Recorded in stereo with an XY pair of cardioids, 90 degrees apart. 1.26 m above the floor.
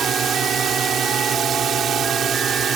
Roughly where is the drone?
Ahead right.